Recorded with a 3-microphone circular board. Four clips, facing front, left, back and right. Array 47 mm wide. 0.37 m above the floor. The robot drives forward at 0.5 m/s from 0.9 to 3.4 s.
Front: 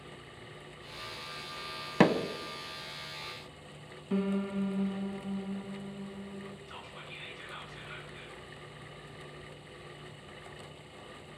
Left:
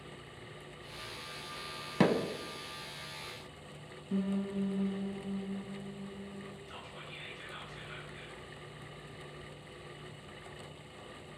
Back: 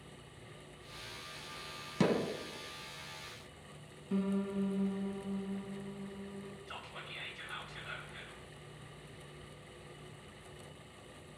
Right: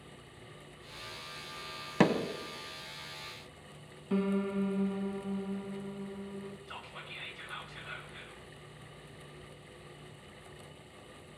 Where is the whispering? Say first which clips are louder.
Right 2 dB, front 1 dB; 145° right, 2 m.